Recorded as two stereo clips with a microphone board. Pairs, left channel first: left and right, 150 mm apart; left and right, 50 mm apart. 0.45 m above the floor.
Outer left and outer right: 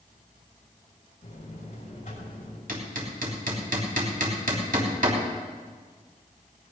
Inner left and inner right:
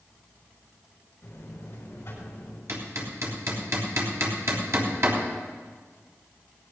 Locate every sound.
1.2 s a buzzer: 55° left (ahead or behind), 6 m
2.7 s hammering: 65° right (ahead or behind), 3 m